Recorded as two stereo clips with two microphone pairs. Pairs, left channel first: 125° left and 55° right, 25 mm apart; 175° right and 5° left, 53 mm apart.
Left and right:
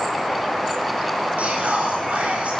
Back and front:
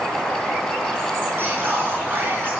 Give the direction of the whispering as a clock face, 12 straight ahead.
1 o'clock.